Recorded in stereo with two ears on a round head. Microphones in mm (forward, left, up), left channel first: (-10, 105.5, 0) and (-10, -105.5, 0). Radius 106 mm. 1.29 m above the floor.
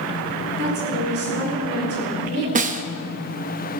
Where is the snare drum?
35° right (ahead or behind), 0.8 m.